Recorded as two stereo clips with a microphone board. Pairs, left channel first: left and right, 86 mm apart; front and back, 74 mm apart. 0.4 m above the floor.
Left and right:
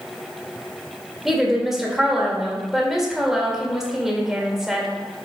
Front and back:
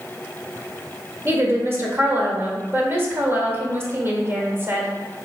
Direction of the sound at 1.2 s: 170° right.